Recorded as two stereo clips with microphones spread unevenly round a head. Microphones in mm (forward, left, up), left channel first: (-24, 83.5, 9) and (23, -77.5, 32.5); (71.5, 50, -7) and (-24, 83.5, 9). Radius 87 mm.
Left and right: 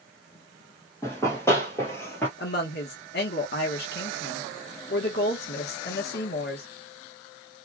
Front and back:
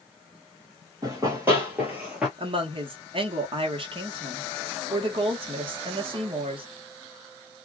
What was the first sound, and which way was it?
Running footsteps, 175° right.